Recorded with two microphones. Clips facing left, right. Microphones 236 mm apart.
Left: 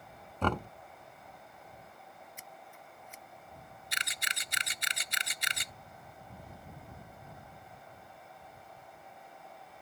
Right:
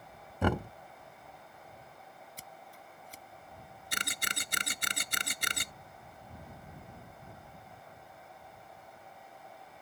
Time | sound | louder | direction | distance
0.4 | knocking | right 2 dB | 10° right (ahead or behind) | ?
2.4 | scissors | even | 40° right (ahead or behind) | ?
3.9 | a camera shutter | right 8 dB | 55° right (ahead or behind) | ?